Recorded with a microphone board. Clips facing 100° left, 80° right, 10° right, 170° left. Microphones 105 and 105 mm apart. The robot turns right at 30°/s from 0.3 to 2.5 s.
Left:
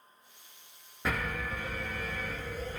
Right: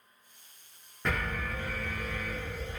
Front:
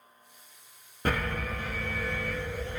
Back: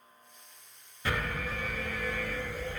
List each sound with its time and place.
1.1 s an alarm: 15° left, 0.6 m; by 2.8 s 60° left, 0.6 m